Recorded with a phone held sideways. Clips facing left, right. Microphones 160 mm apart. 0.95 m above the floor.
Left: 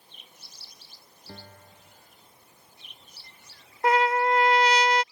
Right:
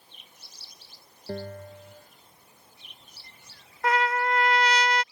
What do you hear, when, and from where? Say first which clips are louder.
1.3 s a bell: right 13 dB; 60° right (ahead or behind)
3.8 s a trumpet: left 3 dB; 25° left (ahead or behind)